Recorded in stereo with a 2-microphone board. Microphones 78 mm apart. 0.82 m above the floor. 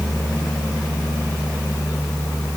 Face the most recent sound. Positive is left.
No sound to turn to.